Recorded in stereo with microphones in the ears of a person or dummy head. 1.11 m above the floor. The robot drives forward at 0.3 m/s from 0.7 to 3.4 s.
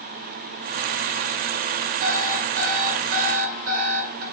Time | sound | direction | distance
2.0 | an alarm clock | 60° right (ahead or behind) | 3 m